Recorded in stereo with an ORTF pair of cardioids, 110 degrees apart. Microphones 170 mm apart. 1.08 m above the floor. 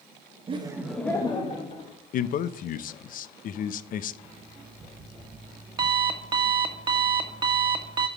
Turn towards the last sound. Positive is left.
turn(degrees=-25)